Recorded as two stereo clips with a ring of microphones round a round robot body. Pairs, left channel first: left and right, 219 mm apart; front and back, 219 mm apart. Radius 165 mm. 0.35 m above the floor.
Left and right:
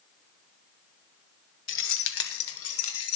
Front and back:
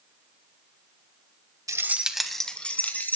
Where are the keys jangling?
105° left, 1.3 m; by 3.2 s 80° left, 3.5 m.